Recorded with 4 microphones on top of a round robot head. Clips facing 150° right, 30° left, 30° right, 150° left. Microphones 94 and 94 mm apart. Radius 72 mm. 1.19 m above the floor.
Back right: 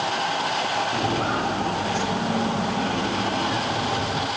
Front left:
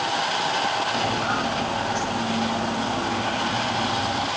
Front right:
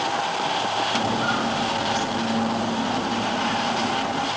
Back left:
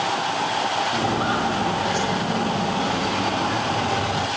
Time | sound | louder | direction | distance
0.9 | footsteps | even, back left 1 dB | 165° right | 8 m